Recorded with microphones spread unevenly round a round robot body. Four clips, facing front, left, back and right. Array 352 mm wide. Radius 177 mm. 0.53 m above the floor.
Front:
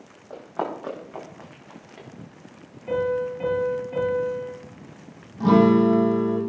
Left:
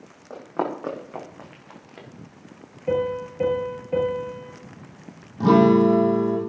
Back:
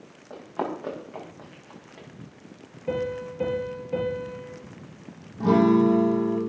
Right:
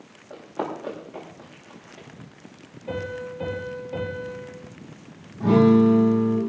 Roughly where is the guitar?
Left.